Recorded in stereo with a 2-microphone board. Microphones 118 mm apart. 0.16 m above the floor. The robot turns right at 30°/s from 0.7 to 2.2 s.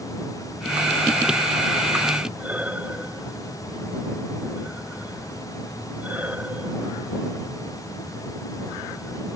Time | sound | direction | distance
2.4 | breathing | 15° right (ahead or behind) | ?